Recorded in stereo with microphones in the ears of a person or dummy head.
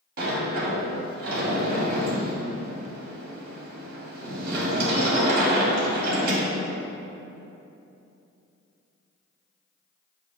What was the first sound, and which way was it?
A sliding door, 60° right (ahead or behind).